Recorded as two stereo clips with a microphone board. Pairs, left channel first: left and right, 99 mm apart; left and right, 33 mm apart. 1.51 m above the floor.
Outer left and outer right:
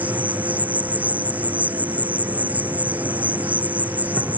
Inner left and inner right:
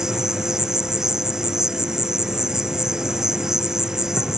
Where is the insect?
15° right (ahead or behind).